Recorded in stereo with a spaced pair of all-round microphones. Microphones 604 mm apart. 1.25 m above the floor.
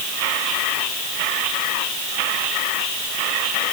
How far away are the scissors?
I don't hear scissors.